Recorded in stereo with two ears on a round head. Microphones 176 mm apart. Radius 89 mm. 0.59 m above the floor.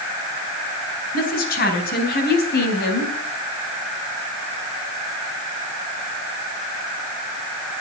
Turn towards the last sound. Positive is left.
turn(degrees=60)  # may be behind; listen again after turning